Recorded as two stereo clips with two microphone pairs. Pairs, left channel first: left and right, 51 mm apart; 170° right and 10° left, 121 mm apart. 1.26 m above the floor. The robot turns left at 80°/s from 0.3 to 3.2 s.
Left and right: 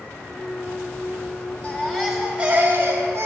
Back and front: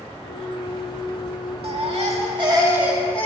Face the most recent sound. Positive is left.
turn(degrees=-90)